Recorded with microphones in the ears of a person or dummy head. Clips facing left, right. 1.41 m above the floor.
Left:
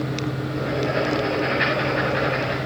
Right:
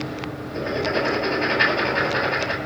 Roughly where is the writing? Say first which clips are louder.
Right 1 dB; right.